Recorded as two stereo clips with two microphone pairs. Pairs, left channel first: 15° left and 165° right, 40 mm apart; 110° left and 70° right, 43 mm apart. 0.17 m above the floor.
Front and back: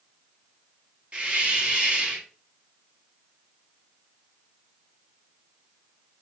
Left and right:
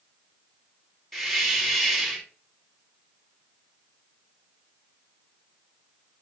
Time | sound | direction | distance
1.1 | a hiss | 160° right | 1.3 m